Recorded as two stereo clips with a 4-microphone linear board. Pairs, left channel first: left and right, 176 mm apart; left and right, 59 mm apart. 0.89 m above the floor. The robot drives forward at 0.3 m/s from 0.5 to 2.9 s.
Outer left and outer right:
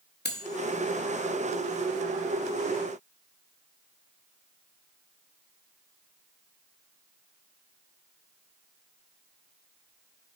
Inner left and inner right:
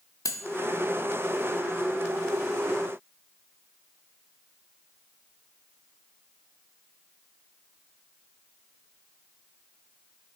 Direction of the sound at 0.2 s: 70° left (ahead or behind).